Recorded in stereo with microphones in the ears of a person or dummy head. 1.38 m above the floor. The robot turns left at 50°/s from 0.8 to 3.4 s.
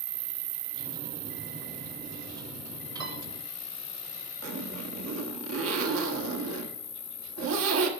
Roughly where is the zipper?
Right.